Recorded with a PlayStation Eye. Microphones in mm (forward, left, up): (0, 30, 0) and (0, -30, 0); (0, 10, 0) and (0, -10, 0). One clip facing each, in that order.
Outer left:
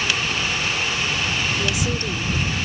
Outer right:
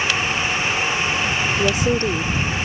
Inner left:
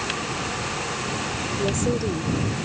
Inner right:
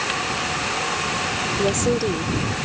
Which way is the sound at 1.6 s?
40° right (ahead or behind).